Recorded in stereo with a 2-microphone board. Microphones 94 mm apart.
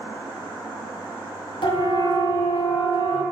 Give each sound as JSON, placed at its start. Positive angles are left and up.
{"t": 1.6, "sound": "a siren", "side_deg": 65, "distance_m": 7.0}